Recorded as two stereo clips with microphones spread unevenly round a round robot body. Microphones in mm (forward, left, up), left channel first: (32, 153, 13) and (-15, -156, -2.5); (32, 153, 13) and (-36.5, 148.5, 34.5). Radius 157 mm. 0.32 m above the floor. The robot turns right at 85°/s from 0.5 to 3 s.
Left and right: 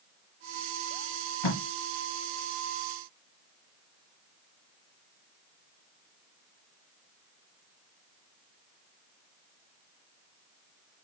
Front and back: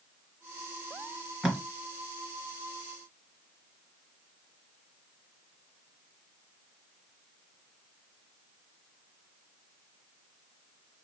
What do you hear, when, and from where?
1.4 s tape being pulled: 95° left, 4 m; by 1.6 s 110° left, 4 m